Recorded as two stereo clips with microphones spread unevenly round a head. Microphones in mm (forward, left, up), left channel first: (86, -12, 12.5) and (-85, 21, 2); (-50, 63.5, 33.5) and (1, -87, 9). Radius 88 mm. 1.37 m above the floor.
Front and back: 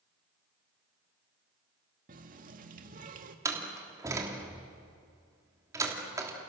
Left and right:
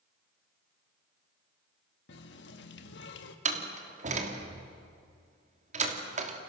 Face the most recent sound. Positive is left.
turn(degrees=-115)